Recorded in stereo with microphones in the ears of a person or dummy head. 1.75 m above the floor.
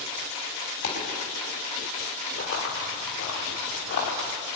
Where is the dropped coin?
55° left (ahead or behind), 4 m.